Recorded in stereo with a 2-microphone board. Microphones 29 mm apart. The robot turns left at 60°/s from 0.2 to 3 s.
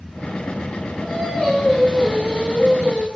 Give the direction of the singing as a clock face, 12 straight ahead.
11 o'clock.